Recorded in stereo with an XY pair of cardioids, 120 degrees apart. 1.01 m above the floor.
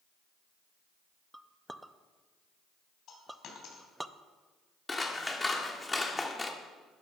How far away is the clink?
About 0.5 m.